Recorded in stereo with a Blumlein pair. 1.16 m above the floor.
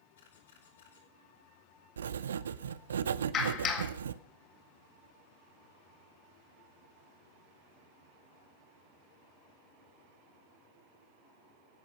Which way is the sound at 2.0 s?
65° right.